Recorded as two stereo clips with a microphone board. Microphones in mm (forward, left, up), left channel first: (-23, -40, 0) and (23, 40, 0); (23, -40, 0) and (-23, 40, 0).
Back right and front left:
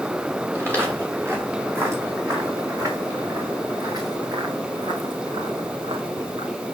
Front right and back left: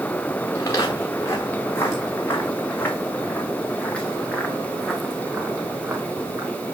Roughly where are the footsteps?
Ahead.